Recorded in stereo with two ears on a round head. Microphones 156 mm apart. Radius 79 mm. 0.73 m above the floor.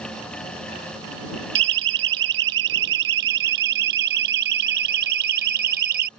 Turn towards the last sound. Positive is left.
turn(degrees=-60)  # may be behind; listen again after turning